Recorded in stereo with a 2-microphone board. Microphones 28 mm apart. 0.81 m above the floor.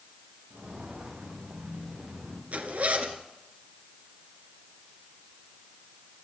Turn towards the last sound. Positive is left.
turn(degrees=-65)  # may be behind; listen again after turning